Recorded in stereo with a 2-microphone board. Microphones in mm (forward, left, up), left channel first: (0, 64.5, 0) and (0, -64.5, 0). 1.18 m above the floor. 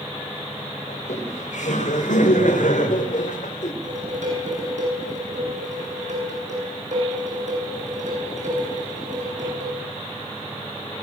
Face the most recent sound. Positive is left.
turn(degrees=-75)  # may be behind; listen again after turning